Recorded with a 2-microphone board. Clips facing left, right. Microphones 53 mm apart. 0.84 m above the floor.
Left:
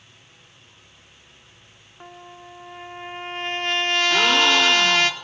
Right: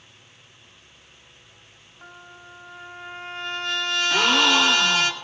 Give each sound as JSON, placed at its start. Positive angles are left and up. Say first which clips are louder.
{"t": 2.0, "sound": "a trumpet", "louder": "left 3 dB", "side_deg": 55, "distance_m": 3.0}
{"t": 4.1, "sound": "a gasp", "louder": "even", "side_deg": 0, "distance_m": 1.1}